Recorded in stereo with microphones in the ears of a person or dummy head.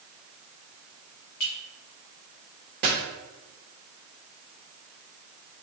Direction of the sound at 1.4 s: 65° left (ahead or behind).